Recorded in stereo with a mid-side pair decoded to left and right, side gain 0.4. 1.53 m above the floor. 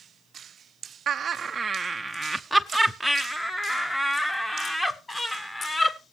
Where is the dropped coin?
I don't hear a dropped coin.